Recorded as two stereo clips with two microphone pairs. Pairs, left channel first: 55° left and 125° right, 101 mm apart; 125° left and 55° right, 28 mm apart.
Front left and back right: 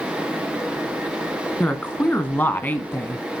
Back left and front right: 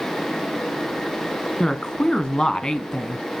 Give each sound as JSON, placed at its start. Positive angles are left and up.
{"t": 1.6, "sound": "a woman speaking", "azimuth_deg": 105, "distance_m": 1.3}